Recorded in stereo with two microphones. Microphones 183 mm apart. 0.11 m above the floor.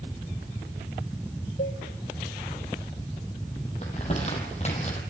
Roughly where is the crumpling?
Left.